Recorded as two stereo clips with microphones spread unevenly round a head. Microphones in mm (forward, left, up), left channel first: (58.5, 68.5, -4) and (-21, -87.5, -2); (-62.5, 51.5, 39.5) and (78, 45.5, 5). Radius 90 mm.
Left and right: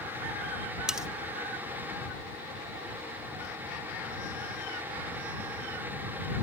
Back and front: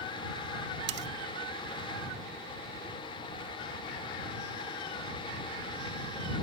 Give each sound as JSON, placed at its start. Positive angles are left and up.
{"t": 0.9, "sound": "cutlery clinking", "azimuth_deg": -30}